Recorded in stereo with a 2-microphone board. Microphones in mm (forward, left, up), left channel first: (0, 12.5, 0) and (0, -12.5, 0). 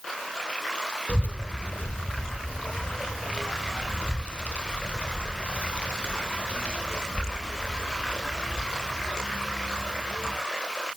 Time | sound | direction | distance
1.1 | a child speaking | 65° left (ahead or behind) | 1.0 m